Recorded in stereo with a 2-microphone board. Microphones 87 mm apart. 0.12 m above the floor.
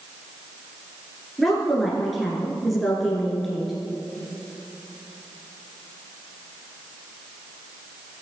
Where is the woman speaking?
Centre (ahead or behind), 1.6 m.